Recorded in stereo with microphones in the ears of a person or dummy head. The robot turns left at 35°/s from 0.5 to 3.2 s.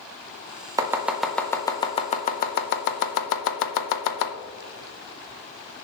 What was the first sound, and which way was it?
Chopping, 15° right (ahead or behind).